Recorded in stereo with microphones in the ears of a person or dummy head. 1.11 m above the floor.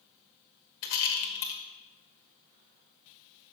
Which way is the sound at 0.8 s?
60° left (ahead or behind).